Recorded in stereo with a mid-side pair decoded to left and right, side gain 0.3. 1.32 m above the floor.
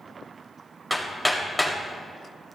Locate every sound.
0.9 s hammering: 5° left, 2.5 m